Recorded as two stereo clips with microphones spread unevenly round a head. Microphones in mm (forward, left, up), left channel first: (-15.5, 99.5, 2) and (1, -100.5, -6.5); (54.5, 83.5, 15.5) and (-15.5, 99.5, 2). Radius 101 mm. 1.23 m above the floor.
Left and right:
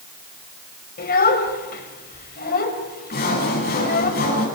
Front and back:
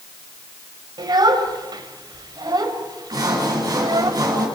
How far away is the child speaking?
About 3.5 m.